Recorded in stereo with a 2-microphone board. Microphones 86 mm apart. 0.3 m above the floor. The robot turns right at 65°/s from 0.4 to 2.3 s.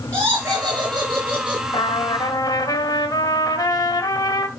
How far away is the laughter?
About 6 m.